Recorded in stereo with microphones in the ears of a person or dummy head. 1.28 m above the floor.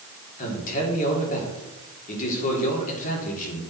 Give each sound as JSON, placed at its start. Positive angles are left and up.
{"t": 0.4, "sound": "a man speaking", "side_deg": 45, "distance_m": 3.5}